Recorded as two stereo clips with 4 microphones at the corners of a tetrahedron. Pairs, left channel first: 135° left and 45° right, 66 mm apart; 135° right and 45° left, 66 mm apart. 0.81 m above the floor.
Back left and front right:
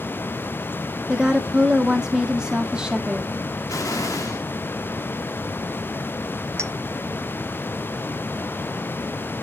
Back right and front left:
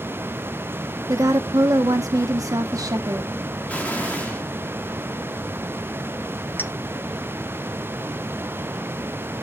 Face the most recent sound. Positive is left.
turn(degrees=-80)